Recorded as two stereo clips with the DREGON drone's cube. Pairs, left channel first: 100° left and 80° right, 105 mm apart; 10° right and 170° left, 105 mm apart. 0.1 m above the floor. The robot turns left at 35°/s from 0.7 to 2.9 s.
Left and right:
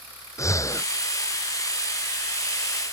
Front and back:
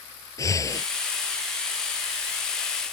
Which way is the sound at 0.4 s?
40° left.